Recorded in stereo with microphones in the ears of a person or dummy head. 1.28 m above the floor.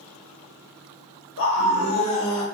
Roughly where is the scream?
Left.